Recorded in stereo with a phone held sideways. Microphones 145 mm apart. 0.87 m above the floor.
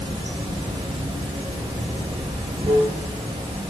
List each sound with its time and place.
0.0 s running water: 40° right (ahead or behind), 0.7 m